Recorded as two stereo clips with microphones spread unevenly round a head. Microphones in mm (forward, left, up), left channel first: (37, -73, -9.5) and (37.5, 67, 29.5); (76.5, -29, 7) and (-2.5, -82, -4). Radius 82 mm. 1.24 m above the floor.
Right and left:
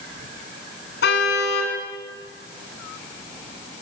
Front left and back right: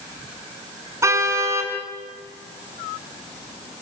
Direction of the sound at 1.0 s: 85° right.